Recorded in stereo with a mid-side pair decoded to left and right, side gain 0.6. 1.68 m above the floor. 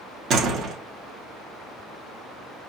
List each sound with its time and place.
0.3 s a door slam: 50° right, 1.9 m